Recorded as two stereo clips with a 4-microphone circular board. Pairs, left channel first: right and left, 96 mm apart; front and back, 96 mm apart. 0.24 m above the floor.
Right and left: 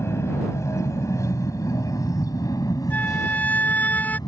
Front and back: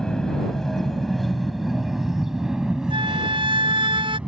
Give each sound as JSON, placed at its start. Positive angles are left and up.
{"t": 0.0, "sound": "an aircraft", "azimuth_deg": -75}
{"t": 2.9, "sound": "a flute", "azimuth_deg": -160}